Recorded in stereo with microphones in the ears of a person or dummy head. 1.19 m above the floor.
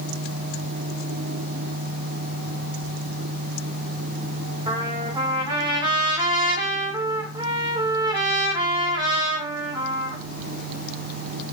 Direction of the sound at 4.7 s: 20° right (ahead or behind).